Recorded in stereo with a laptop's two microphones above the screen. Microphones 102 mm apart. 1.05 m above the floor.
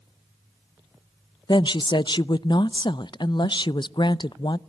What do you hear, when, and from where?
1.5 s a woman speaking: 50° left (ahead or behind), 0.5 m